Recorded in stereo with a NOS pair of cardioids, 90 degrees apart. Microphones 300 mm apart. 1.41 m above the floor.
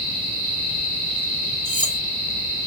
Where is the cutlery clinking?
15° left, 2.5 m.